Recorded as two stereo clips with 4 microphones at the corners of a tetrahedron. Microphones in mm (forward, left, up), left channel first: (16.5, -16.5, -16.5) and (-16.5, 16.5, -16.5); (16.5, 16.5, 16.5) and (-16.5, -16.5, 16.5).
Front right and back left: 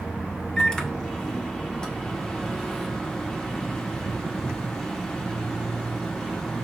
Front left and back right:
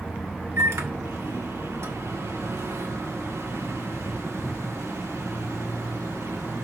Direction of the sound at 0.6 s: 120° right.